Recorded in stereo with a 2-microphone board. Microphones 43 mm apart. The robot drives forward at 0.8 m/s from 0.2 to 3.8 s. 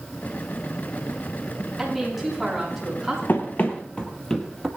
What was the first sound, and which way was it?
A woman speaking, centre (ahead or behind).